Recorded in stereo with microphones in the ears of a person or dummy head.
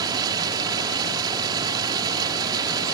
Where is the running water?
20° right (ahead or behind).